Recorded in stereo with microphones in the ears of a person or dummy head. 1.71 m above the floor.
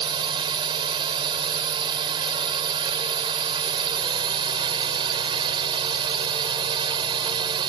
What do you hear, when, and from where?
0.0 s a drone: 25° right (ahead or behind)